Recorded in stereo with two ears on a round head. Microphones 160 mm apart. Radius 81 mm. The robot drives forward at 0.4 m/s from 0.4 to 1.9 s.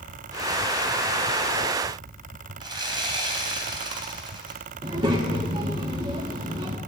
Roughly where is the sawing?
Right.